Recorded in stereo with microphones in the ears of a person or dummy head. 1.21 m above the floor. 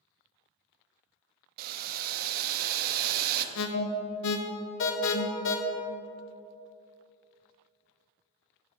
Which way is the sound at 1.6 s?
55° right (ahead or behind).